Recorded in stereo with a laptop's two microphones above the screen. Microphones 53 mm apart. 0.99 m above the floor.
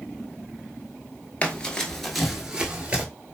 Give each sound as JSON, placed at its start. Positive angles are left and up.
{"t": 1.4, "sound": "running footsteps", "side_deg": 25, "distance_m": 1.1}